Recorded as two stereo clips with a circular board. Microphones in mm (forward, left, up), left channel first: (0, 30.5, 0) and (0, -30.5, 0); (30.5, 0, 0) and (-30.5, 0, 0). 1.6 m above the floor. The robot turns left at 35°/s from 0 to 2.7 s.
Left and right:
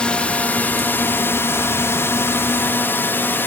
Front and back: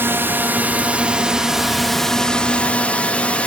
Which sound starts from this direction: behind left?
A drone, at 0.0 s.